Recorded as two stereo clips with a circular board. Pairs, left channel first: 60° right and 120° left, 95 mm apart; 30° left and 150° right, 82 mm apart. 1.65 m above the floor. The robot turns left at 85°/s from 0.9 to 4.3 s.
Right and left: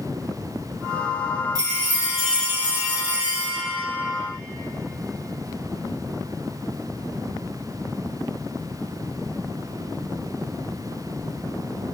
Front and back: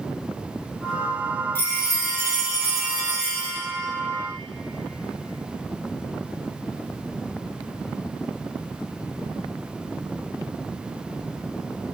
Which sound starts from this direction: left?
A chime, at 1.6 s.